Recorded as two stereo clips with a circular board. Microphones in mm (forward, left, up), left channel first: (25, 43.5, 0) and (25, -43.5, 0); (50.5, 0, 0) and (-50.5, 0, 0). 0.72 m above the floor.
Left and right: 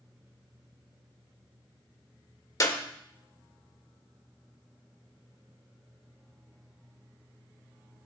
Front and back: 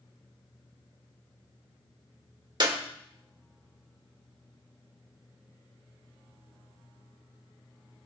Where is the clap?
140° left, 1.7 m.